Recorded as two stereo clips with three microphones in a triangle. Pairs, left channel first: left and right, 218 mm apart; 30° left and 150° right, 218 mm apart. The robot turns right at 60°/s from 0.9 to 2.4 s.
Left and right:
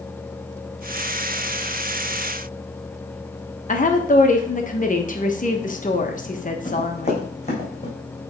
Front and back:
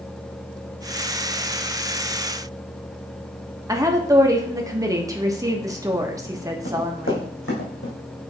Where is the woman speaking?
140° left, 1.1 m.